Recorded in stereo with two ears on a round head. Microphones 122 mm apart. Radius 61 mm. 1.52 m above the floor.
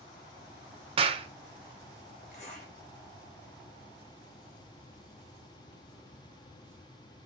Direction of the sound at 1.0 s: 40° right (ahead or behind).